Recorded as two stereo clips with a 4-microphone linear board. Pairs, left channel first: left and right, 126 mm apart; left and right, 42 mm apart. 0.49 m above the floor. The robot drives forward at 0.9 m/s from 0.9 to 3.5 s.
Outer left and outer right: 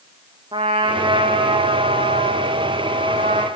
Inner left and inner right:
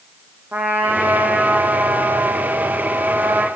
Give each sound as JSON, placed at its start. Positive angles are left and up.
{"t": 0.5, "sound": "a trumpet", "side_deg": -45, "distance_m": 4.0}